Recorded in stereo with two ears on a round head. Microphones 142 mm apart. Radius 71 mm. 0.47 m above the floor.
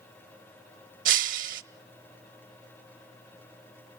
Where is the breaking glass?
60° right (ahead or behind), 0.8 m.